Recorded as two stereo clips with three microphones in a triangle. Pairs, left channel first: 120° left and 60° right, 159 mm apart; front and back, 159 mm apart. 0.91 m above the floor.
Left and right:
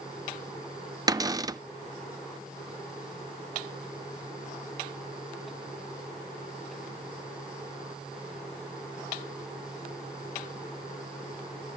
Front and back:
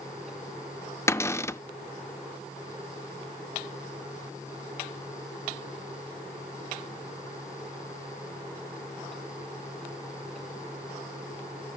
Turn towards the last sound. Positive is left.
turn(degrees=-45)